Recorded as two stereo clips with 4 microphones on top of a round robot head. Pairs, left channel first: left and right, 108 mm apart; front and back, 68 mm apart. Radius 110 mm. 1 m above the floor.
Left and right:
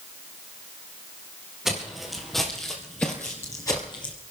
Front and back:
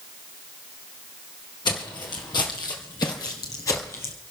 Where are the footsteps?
Straight ahead, 2 m; by 4.1 s 40° left, 1.2 m.